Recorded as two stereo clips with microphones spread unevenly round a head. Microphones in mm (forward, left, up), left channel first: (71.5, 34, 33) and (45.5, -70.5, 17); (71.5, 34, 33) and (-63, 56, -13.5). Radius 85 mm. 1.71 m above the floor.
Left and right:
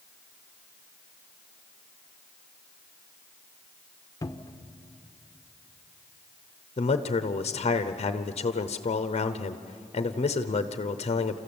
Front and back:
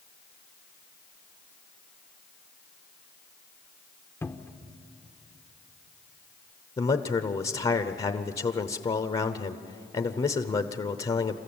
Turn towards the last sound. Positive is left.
turn(degrees=40)